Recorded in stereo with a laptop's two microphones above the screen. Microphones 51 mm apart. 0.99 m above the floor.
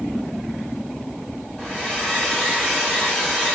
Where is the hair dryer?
30° left (ahead or behind), 1.6 m.